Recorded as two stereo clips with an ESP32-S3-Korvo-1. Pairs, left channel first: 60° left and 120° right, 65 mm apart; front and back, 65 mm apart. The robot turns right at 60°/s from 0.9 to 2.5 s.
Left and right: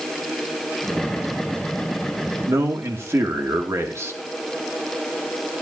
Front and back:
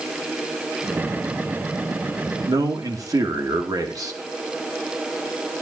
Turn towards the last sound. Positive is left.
turn(degrees=-160)